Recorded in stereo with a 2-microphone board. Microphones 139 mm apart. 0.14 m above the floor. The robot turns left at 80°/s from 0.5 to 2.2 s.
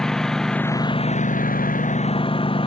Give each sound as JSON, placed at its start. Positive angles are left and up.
{"t": 0.0, "sound": "a lawn mower", "azimuth_deg": 175}